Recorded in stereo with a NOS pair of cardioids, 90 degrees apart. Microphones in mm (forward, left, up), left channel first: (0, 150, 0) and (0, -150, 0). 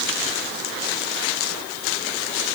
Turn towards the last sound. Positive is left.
No sound to turn to.